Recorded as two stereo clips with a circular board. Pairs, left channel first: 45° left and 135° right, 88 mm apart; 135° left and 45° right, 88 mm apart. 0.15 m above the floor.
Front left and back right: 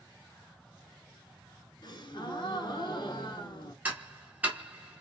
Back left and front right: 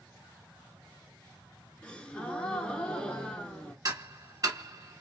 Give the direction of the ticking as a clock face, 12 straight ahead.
2 o'clock.